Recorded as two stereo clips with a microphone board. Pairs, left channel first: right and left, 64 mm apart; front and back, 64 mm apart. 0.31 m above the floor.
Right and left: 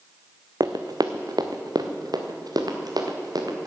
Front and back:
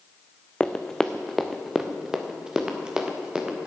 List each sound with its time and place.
0.6 s running footsteps: 75° left, 0.9 m; by 3.7 s 105° left, 2.5 m